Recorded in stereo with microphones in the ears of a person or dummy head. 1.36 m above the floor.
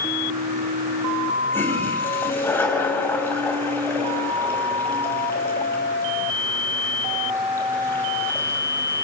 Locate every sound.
1.5 s a toilet flushing: 10° left (ahead or behind), 6 m